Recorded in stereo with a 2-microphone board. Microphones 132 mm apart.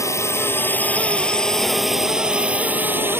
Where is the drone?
25° left (ahead or behind); by 3.2 s 15° right (ahead or behind).